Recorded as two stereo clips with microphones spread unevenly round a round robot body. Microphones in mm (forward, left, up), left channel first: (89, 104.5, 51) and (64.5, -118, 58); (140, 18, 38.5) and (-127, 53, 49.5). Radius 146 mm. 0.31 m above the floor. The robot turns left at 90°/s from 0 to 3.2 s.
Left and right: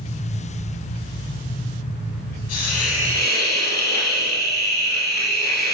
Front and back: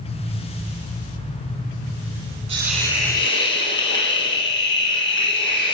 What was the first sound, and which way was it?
A hiss, 105° left.